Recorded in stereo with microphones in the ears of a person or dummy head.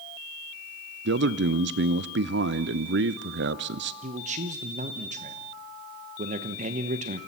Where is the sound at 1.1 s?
50° right (ahead or behind), 0.6 m.